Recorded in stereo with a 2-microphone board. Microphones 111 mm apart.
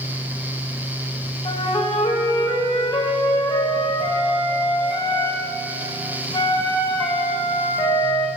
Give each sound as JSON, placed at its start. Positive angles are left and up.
{"t": 1.4, "sound": "a flute", "side_deg": 50, "distance_m": 1.0}